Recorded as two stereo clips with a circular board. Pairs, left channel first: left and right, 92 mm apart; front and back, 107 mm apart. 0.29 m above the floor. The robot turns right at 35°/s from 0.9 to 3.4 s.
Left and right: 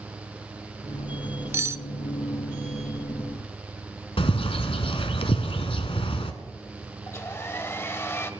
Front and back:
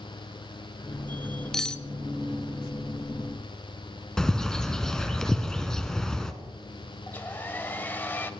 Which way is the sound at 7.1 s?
55° left.